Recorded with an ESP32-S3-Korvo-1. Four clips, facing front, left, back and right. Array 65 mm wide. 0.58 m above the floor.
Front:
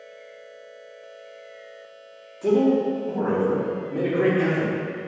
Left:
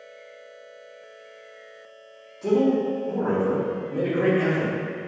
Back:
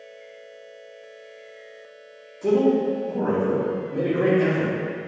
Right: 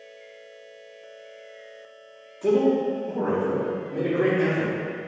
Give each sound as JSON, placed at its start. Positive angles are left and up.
{"t": 2.4, "sound": "a man speaking", "azimuth_deg": -55, "distance_m": 1.2}